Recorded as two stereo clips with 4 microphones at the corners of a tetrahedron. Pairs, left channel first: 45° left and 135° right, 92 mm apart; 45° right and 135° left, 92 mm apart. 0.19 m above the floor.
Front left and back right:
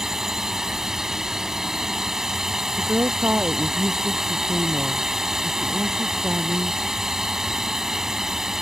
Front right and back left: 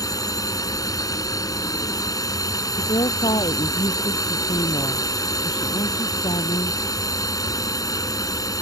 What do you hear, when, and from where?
0.0 s a drone: 55° right
2.8 s a woman speaking: 65° right